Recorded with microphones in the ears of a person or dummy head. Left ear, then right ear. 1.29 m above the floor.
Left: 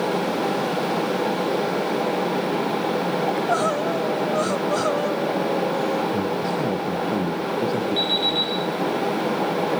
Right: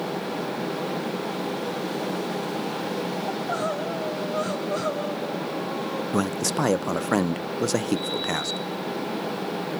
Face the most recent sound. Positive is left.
turn(degrees=75)  # may be behind; listen again after turning